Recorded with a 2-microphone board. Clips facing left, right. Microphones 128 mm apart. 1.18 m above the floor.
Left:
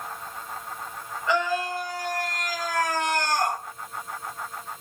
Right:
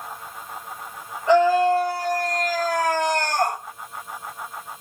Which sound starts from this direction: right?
A scream, at 1.3 s.